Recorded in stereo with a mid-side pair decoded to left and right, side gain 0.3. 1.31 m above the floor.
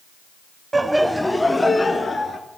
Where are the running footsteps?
I don't hear running footsteps.